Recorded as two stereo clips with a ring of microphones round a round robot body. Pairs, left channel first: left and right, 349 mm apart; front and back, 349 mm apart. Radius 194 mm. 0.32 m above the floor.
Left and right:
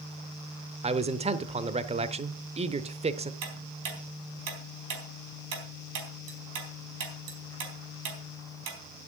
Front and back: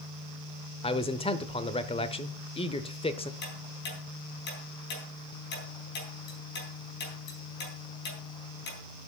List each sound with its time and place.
0.8 s a man speaking: 50° right, 0.9 m
3.4 s ticking: 65° right, 3.5 m